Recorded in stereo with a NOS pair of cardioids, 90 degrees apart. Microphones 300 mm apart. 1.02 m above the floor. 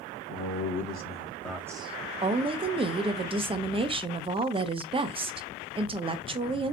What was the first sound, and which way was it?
A man speaking, 60° left.